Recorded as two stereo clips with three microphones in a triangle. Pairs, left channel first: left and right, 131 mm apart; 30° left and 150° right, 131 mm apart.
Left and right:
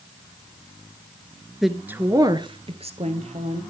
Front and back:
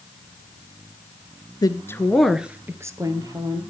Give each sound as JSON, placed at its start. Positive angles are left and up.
{"t": 1.6, "sound": "a woman speaking", "azimuth_deg": 0, "distance_m": 1.3}